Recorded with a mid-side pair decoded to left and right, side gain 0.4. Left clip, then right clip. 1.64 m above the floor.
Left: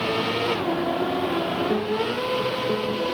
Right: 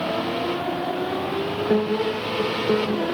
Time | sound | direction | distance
1.7 | a piano | 45° right | 1.2 m